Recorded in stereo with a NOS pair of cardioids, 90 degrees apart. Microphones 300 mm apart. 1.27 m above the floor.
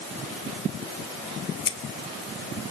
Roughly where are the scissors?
Ahead left.